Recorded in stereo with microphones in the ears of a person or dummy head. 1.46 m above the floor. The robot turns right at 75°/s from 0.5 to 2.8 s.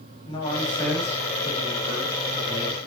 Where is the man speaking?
150° left, 2.5 m; by 2.9 s 35° right, 2.5 m.